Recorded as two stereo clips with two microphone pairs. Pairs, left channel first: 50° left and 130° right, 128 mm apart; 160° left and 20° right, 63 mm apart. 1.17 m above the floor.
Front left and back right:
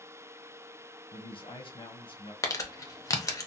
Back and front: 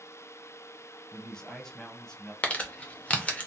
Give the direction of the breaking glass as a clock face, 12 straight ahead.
I don't hear breaking glass.